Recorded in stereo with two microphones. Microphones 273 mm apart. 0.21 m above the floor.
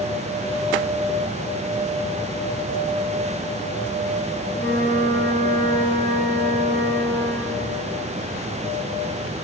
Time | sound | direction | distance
4.5 | a flute | 35° right (ahead or behind) | 1.4 m